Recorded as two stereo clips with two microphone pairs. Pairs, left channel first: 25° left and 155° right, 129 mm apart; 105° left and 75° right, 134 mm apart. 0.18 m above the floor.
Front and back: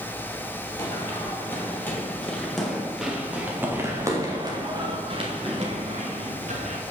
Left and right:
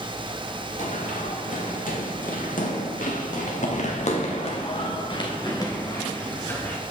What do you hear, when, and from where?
0.8 s running footsteps: 90° left, 3 m; by 6.8 s straight behind, 3 m